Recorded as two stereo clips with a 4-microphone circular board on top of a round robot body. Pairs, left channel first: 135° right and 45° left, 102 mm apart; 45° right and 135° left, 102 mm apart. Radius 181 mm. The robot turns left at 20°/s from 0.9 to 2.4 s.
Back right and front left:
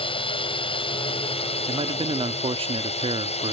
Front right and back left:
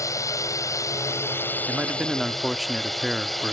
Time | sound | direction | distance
0.0 | a drone | 105° right | ?
1.7 | a man speaking | 60° left | ?